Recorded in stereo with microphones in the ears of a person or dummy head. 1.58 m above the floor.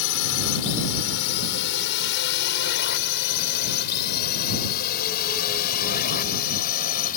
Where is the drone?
70° left (ahead or behind); by 7.2 s 45° left (ahead or behind).